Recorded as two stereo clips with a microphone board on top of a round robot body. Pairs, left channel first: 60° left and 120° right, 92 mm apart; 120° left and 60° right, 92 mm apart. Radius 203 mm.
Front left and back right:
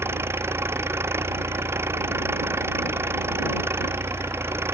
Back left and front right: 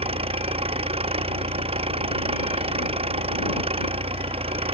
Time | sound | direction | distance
0.0 | an engine running | 55° right | ?